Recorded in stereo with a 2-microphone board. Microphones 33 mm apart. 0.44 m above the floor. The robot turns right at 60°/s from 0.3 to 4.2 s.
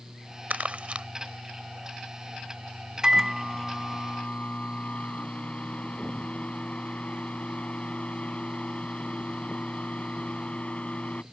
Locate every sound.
0.5 s crumpling: 55° right (ahead or behind); by 1.1 s 30° right (ahead or behind)
3.0 s a microwave: 20° right; by 11.2 s 50° left